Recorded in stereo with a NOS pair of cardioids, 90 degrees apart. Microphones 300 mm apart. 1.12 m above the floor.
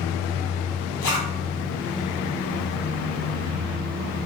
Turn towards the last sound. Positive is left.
turn(degrees=60)